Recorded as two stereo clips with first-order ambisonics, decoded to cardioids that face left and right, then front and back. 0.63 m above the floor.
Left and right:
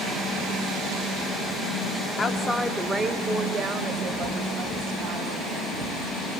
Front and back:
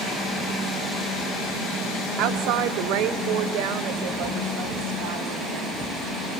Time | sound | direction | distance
2.2 | a woman speaking | 160° left | 0.9 m